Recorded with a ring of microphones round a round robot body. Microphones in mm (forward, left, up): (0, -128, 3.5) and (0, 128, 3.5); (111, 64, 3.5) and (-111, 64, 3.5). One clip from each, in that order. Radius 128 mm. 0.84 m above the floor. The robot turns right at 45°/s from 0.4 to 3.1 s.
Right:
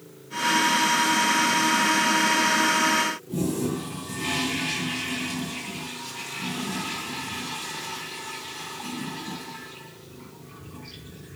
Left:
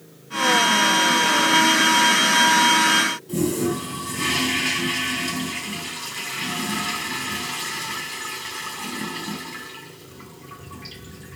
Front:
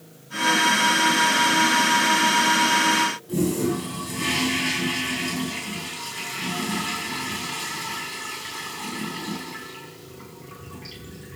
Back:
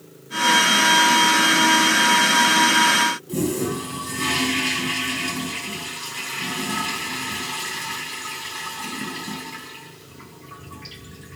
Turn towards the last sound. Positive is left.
turn(degrees=120)